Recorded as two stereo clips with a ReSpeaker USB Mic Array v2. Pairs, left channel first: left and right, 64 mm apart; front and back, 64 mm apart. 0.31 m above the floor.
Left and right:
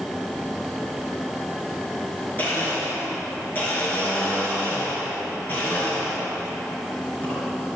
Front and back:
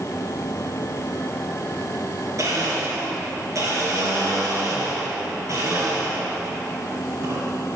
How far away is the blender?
About 4 m.